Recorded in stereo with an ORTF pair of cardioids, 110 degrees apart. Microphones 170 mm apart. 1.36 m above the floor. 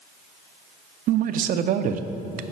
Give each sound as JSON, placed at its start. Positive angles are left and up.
{"t": 1.1, "sound": "a man speaking", "azimuth_deg": -55, "distance_m": 0.5}